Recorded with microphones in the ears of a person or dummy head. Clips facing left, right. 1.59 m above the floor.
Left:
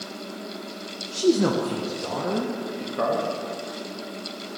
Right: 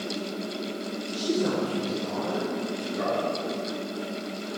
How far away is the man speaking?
About 1.5 m.